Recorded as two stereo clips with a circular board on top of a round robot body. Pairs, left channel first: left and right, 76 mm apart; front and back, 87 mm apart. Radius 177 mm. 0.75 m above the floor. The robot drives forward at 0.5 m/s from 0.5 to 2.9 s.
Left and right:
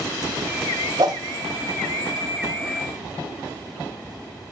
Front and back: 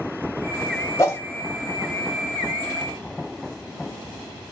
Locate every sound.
1.0 s a whoosh: 55° right, 0.9 m; by 1.2 s 60° right, 0.9 m